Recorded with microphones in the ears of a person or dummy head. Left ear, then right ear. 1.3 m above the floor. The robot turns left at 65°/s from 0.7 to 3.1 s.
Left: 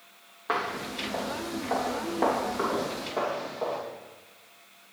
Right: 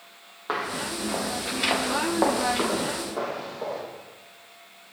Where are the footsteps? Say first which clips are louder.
Right 1 dB; 5° right (ahead or behind), 2 m; by 3.8 s 20° left (ahead or behind), 3.5 m.